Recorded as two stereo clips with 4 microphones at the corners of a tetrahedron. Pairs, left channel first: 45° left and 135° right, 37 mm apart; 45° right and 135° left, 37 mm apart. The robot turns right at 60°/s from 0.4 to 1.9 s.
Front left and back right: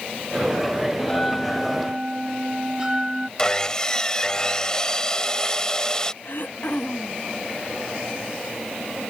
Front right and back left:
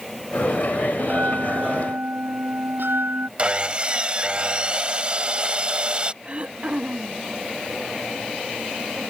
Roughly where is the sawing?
Left.